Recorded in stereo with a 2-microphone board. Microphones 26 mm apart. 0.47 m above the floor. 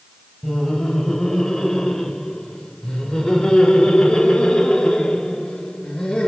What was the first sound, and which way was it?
Laughter, 30° left (ahead or behind).